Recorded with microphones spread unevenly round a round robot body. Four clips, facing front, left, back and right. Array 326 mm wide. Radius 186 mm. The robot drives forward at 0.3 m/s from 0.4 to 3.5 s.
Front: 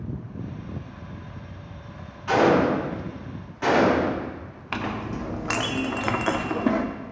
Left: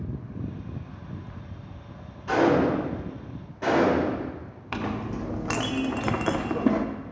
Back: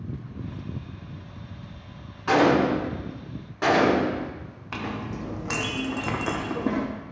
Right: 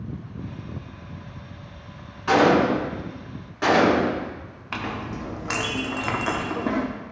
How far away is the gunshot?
About 2.5 m.